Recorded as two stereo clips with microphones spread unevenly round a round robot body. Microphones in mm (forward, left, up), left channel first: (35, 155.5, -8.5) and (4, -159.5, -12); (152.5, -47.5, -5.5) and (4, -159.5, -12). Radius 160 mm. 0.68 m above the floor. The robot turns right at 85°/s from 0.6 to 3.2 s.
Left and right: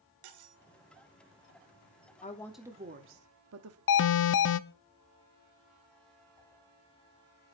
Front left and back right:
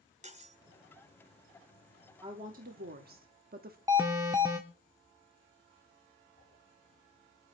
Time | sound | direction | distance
0.2 | cutlery clinking | 90° right | 1.5 m
2.2 | a woman speaking | 145° left | 1.1 m
3.9 | an alarm | 140° left | 0.5 m
6.4 | a whoosh | 110° left | 6 m